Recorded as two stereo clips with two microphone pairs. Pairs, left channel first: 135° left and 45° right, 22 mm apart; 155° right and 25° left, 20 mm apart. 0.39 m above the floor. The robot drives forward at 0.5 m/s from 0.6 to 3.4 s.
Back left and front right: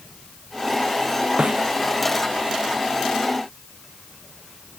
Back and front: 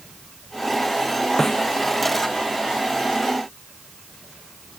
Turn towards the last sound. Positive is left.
turn(degrees=-95)